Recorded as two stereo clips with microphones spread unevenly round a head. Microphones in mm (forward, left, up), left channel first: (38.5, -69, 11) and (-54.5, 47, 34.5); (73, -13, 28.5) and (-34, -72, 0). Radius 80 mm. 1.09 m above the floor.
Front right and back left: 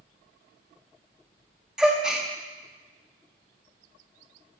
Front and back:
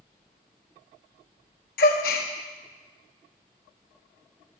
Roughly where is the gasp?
Ahead left.